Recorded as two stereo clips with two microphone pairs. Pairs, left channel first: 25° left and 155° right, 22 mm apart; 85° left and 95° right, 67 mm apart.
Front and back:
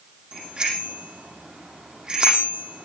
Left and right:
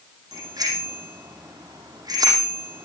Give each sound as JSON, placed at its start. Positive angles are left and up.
{"t": 0.3, "sound": "a bicycle bell", "azimuth_deg": -115, "distance_m": 7.5}